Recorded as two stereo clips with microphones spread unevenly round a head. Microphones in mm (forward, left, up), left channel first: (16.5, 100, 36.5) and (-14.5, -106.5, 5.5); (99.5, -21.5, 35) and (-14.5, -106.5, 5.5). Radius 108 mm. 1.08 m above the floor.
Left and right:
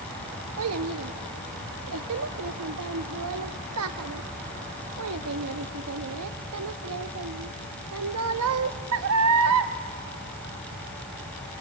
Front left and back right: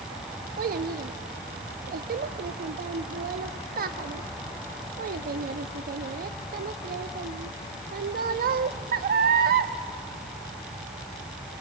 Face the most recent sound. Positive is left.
turn(degrees=-120)